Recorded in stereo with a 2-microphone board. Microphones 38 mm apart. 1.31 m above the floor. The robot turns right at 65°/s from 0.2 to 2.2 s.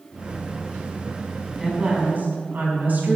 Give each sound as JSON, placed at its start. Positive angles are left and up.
{"t": 1.6, "sound": "a woman speaking", "azimuth_deg": -170, "distance_m": 5.0}